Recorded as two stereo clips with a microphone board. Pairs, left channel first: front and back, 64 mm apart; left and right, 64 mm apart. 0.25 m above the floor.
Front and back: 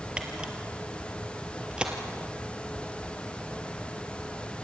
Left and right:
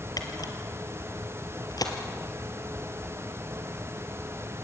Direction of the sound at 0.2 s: 105° left.